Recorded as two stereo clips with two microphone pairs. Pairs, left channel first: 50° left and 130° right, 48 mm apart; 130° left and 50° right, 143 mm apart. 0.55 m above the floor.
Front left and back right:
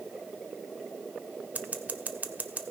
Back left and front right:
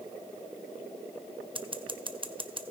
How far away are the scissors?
About 0.9 m.